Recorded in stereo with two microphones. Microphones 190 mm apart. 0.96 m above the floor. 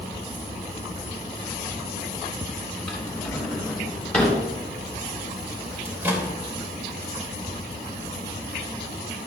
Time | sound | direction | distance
2.9 | a drawer | 5° left (ahead or behind) | 3 m
5.8 | a microwave | 10° right (ahead or behind) | 3 m